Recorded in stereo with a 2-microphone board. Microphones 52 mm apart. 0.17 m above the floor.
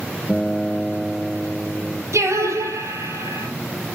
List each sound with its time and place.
0.3 s a guitar: 10° left (ahead or behind), 1.4 m
2.1 s singing: 75° right (ahead or behind), 5 m